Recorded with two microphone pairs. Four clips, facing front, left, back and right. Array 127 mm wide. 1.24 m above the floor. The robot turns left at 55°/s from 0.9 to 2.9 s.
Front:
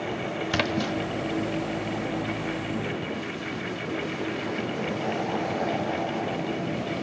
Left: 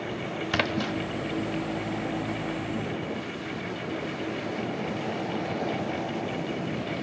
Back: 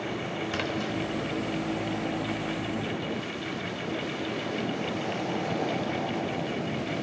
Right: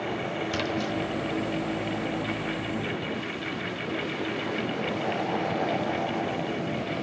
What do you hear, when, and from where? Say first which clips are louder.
0.5 s a splash: left 3 dB, front 6 dB; 60° left, 0.9 m; by 0.9 s 55° left, 0.9 m